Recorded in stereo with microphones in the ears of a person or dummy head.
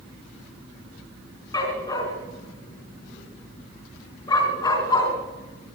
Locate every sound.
1.5 s a dog barking: 20° left (ahead or behind), 4 m